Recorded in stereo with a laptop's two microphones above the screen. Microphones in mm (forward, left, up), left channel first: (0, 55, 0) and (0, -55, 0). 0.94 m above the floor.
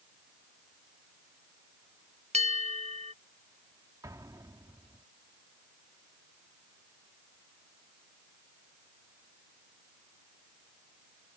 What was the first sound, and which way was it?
A bell, 80° right.